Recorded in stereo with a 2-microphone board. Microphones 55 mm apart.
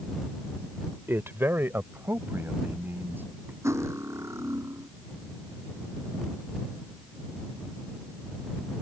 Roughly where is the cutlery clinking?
Right.